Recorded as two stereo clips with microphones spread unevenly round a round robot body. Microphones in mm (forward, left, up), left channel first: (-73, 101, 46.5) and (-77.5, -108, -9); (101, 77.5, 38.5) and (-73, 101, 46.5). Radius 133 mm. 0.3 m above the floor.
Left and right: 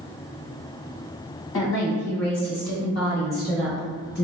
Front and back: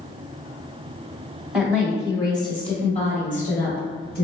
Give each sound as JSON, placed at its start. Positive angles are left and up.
{"t": 1.5, "sound": "a woman speaking", "azimuth_deg": 80, "distance_m": 1.2}